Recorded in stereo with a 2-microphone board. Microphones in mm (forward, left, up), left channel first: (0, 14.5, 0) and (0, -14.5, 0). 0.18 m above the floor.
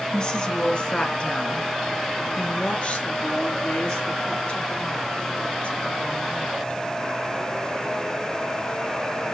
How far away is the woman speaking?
About 1.8 m.